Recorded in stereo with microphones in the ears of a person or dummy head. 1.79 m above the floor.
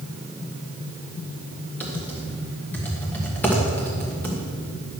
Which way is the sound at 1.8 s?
10° left (ahead or behind).